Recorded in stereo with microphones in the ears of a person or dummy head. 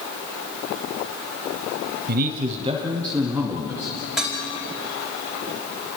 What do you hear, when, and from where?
2.1 s a man speaking: 50° right (ahead or behind), 0.8 m; by 4.1 s centre (ahead or behind), 2 m
4.2 s dishes clattering: centre (ahead or behind), 4 m